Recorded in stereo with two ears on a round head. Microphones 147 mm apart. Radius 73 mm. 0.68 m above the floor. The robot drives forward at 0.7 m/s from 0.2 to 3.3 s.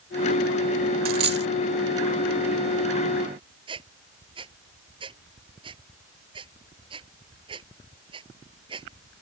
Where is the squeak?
30° right (ahead or behind).